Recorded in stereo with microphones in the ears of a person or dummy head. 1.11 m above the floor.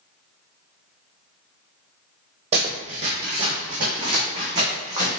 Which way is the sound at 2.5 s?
30° right (ahead or behind).